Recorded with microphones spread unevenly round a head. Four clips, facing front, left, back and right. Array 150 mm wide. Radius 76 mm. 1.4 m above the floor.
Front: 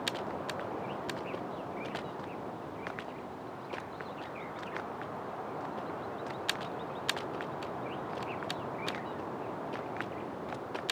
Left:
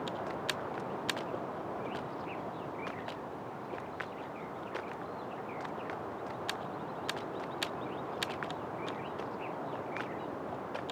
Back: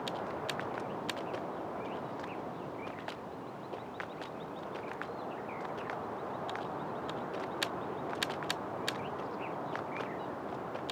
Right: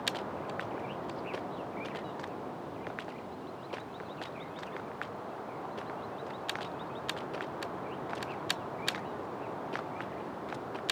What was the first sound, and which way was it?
Only background noise.